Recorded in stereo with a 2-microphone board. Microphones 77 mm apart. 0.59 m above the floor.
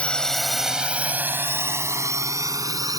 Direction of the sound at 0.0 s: 15° left (ahead or behind).